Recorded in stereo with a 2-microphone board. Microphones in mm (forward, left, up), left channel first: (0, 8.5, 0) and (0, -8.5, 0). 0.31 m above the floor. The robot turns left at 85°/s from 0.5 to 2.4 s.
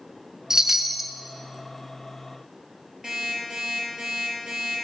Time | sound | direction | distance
0.5 | a chime | 135° right | 0.6 m
3.0 | an alarm clock | 30° right (ahead or behind) | 4.5 m